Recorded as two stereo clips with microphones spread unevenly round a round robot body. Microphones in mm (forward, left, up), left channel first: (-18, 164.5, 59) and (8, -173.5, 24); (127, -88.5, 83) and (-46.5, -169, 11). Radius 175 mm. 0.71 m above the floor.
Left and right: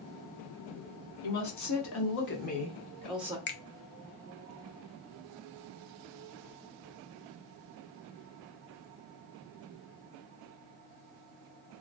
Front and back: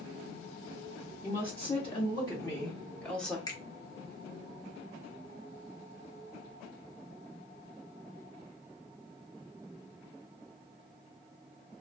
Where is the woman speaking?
100° left, 1.4 m; by 3.4 s 125° right, 0.9 m.